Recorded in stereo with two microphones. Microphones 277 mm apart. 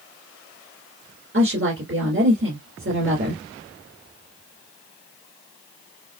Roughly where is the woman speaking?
Right.